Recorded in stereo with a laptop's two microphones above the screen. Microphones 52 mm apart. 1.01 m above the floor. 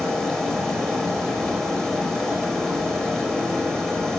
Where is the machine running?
10° left (ahead or behind), 4.5 m.